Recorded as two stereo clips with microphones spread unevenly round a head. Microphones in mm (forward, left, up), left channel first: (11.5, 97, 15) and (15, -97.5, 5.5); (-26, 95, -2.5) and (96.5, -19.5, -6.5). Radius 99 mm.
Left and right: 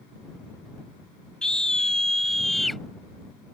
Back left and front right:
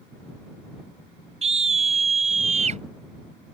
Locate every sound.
1.4 s a scream: 5° left; by 2.8 s straight ahead